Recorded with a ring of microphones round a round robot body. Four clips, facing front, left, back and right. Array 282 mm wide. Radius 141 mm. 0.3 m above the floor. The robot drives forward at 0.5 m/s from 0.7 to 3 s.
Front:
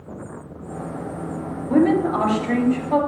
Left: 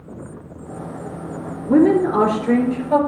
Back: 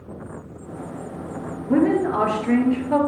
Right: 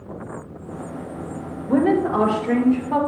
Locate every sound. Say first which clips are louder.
1.7 s a woman speaking: left 4 dB, front 1 dB; 100° left, 4.5 m; by 3.0 s 110° left, 5 m